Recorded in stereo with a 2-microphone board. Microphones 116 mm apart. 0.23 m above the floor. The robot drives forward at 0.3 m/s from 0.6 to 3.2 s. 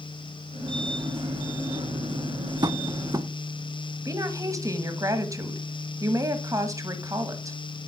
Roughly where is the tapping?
Right.